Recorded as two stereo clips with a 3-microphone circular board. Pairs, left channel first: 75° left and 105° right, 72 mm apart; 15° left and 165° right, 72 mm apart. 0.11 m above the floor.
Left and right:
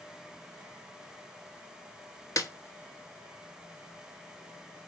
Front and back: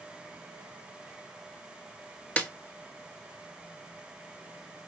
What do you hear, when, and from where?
2.4 s a snare drum: 80° left, 0.6 m